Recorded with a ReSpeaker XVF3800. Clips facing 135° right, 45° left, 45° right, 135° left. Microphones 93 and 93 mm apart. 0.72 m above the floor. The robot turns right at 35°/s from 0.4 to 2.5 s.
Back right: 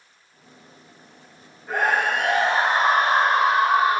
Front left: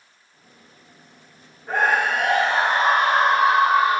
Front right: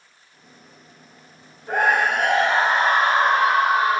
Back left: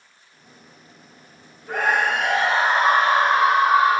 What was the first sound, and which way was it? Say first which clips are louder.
A scream: front left 1 dB, front right 2 dB; 20° right.